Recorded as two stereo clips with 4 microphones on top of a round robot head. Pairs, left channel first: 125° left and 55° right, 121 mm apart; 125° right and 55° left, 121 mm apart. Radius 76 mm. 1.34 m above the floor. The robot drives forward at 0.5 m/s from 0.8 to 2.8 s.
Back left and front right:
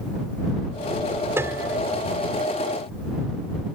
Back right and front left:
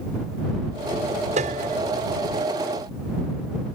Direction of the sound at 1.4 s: 20° left.